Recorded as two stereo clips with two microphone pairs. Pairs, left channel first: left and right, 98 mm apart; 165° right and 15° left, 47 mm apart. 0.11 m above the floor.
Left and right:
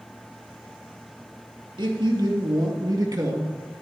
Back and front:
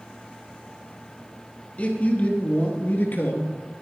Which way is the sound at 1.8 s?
115° right.